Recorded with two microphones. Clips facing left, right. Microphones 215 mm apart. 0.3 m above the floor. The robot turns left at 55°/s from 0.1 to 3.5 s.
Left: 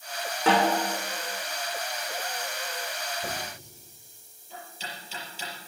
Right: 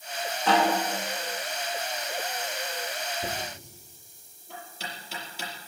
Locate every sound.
0.5 s a snare drum: 75° left (ahead or behind), 7 m; by 0.8 s 85° left, 7 m
3.2 s knocking: 50° right (ahead or behind), 5.5 m; by 5.5 s 65° right (ahead or behind), 5.5 m